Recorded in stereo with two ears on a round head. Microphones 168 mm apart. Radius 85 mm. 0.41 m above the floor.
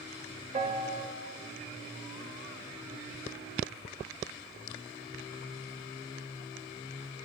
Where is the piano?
35° right (ahead or behind), 1.6 m.